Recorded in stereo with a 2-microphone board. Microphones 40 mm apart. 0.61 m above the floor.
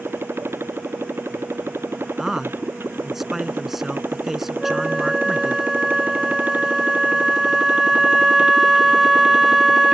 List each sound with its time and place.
0.0 s a motorcycle: 80° right; by 9.9 s 20° right (ahead or behind)
2.2 s a man speaking: 10° right (ahead or behind)
4.6 s a flute: 5° right (ahead or behind)